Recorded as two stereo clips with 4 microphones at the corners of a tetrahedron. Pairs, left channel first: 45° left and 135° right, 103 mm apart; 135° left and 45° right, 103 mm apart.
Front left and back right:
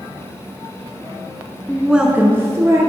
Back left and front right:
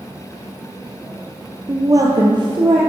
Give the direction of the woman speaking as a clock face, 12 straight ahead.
1 o'clock.